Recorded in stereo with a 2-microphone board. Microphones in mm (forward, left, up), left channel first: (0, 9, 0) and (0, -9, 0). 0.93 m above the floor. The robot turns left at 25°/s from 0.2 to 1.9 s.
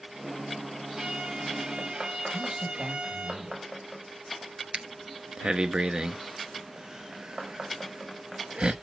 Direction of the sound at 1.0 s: 55° right (ahead or behind).